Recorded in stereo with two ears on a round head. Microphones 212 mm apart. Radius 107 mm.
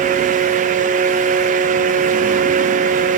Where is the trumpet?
No trumpet in this recording.